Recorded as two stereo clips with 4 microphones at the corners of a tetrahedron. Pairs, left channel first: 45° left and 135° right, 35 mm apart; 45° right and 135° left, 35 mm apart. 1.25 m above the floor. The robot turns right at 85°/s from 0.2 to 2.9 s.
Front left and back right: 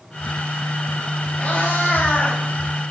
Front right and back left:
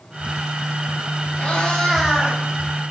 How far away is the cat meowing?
About 3 m.